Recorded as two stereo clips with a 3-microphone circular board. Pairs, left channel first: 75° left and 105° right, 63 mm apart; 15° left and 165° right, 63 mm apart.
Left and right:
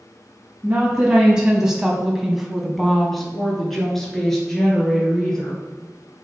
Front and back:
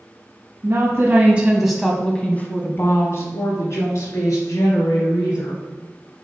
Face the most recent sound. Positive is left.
turn(degrees=-5)